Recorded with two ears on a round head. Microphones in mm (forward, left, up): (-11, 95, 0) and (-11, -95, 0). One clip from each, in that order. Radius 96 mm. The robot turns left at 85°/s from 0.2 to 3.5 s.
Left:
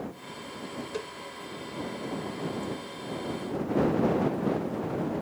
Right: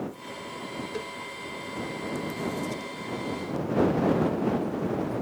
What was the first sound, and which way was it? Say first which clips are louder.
A cowbell: even; 25° left (ahead or behind).